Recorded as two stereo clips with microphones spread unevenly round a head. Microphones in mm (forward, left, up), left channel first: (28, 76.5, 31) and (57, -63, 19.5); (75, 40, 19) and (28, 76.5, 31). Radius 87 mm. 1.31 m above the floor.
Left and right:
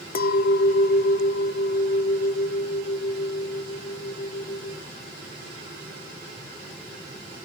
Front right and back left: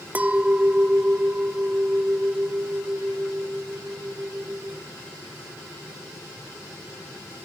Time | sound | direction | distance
0.1 | a clink | 85° left | 0.8 m